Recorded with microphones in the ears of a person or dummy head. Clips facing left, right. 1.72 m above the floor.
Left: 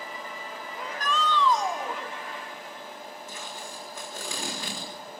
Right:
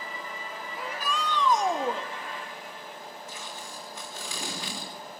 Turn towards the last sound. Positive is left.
turn(degrees=50)  # may be behind; listen again after turning